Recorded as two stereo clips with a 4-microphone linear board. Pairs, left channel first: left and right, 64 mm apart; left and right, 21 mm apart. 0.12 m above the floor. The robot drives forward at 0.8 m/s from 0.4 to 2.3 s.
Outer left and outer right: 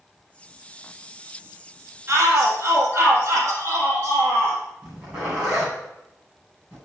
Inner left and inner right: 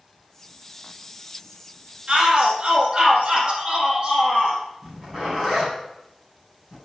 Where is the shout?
40° right (ahead or behind), 4 m.